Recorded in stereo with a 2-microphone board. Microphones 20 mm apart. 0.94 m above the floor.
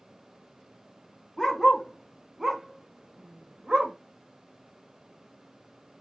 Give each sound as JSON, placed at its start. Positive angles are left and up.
{"t": 1.4, "sound": "a dog barking", "side_deg": 25, "distance_m": 0.9}